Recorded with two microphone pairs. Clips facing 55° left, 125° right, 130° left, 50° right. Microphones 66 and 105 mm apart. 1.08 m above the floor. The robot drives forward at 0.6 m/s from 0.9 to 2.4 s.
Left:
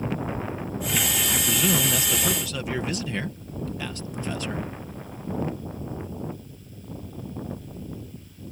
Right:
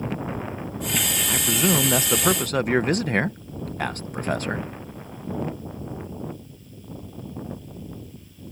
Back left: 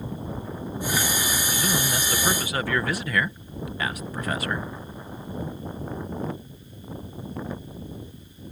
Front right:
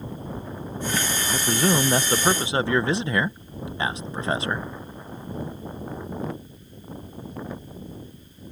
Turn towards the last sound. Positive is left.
turn(degrees=-105)